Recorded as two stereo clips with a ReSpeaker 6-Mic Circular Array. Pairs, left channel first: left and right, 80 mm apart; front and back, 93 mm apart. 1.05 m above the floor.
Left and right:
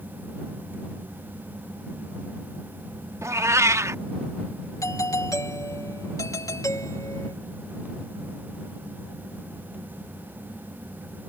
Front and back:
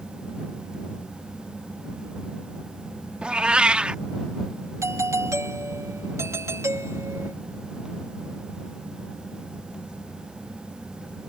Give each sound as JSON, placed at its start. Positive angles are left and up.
{"t": 3.2, "sound": "a cat meowing", "azimuth_deg": -105}
{"t": 4.8, "sound": "a doorbell", "azimuth_deg": 130}